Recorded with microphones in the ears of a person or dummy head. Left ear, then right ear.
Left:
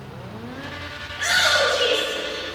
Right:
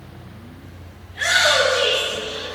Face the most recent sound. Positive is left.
turn(degrees=-35)  # may be behind; listen again after turning